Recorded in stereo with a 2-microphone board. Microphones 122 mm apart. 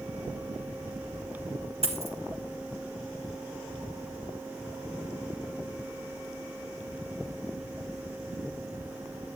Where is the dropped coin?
60° right (ahead or behind), 1.6 m.